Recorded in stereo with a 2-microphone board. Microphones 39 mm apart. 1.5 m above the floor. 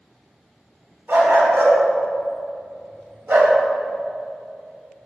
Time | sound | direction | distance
1.1 | a dog barking | 70° right (ahead or behind) | 3.5 m